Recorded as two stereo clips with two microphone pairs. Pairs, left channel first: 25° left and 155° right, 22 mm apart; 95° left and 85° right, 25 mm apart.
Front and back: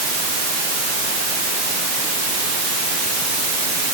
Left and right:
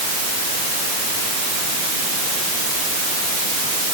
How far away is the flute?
I don't hear a flute.